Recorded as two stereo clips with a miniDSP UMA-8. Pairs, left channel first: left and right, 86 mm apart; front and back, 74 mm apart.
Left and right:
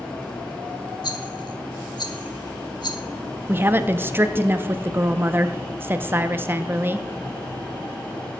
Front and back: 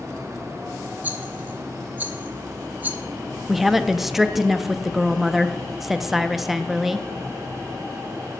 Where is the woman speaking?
95° right, 0.6 m.